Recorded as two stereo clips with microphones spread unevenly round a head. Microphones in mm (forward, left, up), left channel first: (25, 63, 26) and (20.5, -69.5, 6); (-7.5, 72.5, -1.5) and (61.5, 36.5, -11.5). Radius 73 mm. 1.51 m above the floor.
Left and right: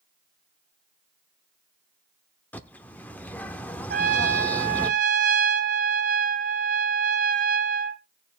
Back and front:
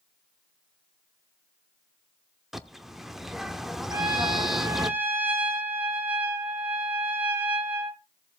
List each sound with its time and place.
2.5 s a bird: 75° left, 1.1 m
3.9 s a trumpet: 100° right, 1.5 m